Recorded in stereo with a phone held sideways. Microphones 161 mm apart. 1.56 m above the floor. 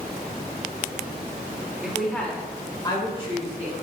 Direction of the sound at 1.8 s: 10° right (ahead or behind).